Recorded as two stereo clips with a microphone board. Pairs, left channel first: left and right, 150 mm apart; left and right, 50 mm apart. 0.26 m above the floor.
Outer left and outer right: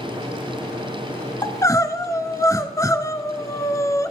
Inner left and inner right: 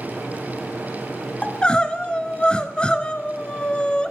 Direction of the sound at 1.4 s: 20° left (ahead or behind).